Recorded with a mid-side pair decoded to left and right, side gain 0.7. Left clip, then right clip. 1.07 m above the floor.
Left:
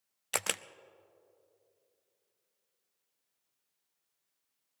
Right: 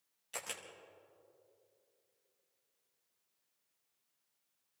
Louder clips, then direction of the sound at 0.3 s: Left 10 dB; 55° left.